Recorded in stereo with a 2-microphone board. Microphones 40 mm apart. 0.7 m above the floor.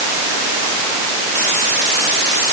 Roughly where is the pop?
No pop in this recording.